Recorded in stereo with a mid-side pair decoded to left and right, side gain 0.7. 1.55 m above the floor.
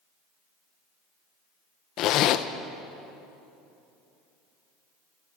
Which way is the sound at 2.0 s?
55° left.